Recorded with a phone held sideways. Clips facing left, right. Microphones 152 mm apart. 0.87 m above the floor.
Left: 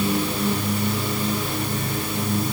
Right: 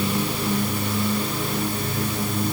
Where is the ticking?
I don't hear ticking.